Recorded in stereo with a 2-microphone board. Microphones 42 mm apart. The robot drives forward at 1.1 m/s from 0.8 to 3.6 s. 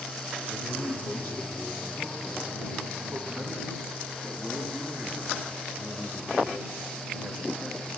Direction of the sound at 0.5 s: 45° left (ahead or behind).